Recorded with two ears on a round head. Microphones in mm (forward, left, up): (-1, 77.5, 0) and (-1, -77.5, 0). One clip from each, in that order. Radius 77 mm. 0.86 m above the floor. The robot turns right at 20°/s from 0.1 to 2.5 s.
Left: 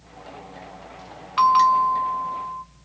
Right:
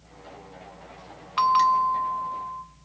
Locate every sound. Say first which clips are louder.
1.4 s a bell: left 4 dB; 5° right (ahead or behind), 0.9 m; by 2.6 s 5° left (ahead or behind), 0.9 m